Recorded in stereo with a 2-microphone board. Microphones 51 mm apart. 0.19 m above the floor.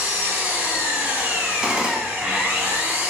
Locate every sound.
0.0 s an engine running: 30° right (ahead or behind), 0.8 m
1.6 s a gunshot: 15° right (ahead or behind), 0.5 m